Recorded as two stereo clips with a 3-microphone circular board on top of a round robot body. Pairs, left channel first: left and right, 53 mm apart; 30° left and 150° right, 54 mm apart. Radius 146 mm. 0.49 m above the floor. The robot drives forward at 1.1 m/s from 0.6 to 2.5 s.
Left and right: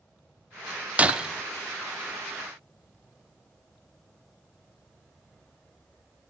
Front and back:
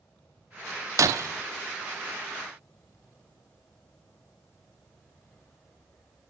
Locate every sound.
1.0 s breaking glass: 150° right, 0.6 m; by 1.3 s 165° right, 0.9 m